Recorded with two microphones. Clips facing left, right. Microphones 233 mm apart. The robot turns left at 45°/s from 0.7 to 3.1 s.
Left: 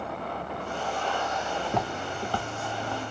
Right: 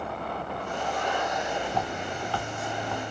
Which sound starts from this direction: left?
Footsteps, at 1.7 s.